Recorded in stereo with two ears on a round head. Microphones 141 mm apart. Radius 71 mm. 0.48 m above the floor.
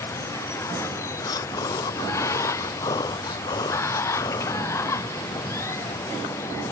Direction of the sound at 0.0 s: 20° left (ahead or behind).